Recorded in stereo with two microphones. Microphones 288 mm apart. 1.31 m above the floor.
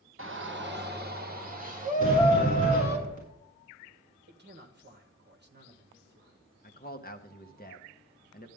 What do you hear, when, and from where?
0.2 s a shout: 45° right (ahead or behind), 1.1 m; by 3.0 s 20° right (ahead or behind), 3 m
2.0 s a sliding door: 30° right (ahead or behind), 6.5 m
4.3 s a man speaking: 35° right (ahead or behind), 1.4 m
6.6 s a man speaking: 30° left (ahead or behind), 1.1 m